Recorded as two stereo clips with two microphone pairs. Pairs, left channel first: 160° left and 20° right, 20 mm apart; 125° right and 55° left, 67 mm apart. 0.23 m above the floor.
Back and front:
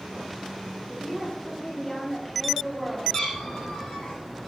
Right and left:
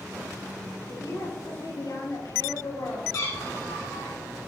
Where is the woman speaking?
125° right, 5.5 m.